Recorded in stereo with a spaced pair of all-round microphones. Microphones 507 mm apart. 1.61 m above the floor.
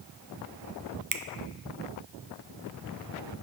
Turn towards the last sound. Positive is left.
turn(degrees=-40)  # may be behind; listen again after turning